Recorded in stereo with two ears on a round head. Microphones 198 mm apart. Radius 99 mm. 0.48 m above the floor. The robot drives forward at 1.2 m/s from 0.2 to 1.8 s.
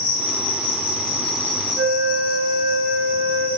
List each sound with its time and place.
0.0 s an insect: 60° left (ahead or behind), 3.5 m; by 3.6 s 45° left (ahead or behind), 4.5 m
1.7 s a flute: 40° right (ahead or behind), 2.5 m